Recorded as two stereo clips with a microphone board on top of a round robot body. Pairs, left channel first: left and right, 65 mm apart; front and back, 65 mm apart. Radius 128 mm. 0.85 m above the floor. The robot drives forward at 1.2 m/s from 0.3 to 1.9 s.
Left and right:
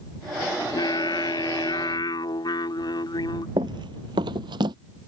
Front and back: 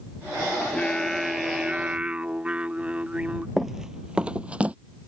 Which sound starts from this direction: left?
Singing, at 0.6 s.